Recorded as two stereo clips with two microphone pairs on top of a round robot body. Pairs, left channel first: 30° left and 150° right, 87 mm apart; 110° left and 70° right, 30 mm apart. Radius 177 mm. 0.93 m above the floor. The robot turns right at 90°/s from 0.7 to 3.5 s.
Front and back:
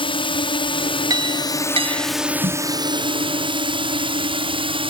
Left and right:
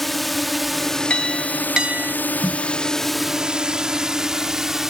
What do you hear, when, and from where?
0.0 s a drone: 25° left; by 4.9 s 145° right
1.1 s a clink: 165° left; by 2.1 s 100° right
2.4 s a snare drum: 130° right; by 2.7 s 110° right